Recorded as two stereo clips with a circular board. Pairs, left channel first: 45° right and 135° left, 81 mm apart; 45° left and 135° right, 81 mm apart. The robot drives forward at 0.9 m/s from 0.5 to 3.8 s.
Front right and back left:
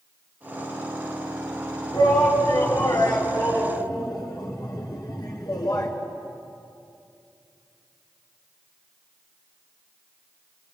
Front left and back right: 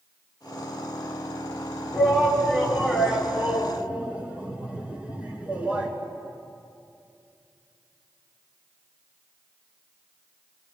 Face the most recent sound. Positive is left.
turn(degrees=-65)